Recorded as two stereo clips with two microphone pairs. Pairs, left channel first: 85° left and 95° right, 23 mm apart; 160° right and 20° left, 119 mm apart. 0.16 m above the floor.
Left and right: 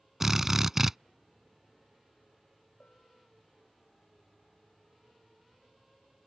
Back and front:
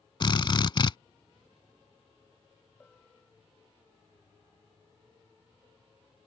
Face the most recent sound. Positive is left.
turn(degrees=120)